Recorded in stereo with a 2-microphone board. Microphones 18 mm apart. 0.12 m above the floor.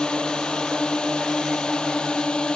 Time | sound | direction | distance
0.0 | a drone | 65° left (ahead or behind) | ?